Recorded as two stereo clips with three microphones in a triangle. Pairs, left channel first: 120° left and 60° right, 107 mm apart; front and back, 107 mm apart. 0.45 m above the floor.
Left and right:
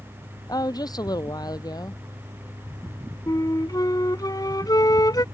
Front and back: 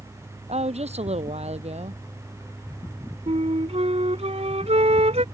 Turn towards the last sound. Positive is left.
turn(degrees=175)